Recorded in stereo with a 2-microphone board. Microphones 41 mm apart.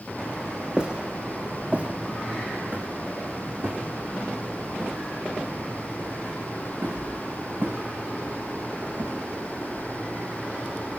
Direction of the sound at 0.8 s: 20° right (ahead or behind).